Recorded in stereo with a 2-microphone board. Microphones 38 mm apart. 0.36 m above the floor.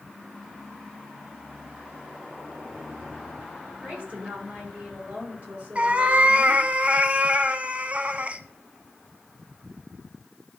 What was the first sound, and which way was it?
A woman speaking, 40° right (ahead or behind).